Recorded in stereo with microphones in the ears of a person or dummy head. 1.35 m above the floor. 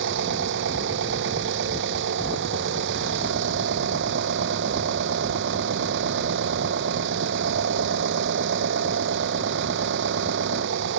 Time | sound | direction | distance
0.0 | an engine running | 75° right (ahead or behind) | ?